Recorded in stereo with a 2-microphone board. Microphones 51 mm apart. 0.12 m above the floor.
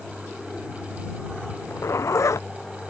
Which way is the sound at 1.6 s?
75° left (ahead or behind).